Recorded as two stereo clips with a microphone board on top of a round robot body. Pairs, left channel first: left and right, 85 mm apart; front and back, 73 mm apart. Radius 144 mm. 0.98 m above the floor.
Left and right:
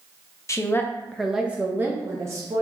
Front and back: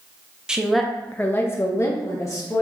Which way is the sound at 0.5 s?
105° left.